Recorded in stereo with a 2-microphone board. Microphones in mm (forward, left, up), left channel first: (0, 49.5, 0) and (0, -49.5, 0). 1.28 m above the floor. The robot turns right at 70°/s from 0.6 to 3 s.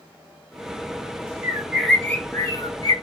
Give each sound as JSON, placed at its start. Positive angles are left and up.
{"t": 1.4, "sound": "a bird", "azimuth_deg": -30, "distance_m": 0.5}